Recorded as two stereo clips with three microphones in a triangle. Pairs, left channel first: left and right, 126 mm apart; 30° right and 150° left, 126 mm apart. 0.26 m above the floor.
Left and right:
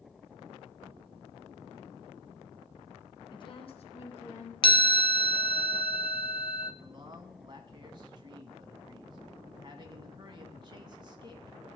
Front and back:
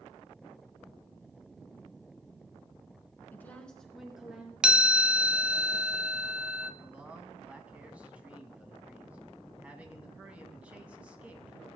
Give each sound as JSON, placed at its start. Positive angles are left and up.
{"t": 3.3, "sound": "a woman speaking", "azimuth_deg": 40, "distance_m": 2.5}
{"t": 4.6, "sound": "a chime", "azimuth_deg": 70, "distance_m": 0.7}
{"t": 6.8, "sound": "a man speaking", "azimuth_deg": -135, "distance_m": 1.7}